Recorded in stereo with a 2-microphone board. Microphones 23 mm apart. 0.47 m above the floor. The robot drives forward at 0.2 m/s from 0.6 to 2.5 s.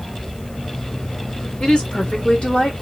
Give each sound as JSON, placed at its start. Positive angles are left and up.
{"t": 1.6, "sound": "a woman speaking", "side_deg": 45, "distance_m": 1.7}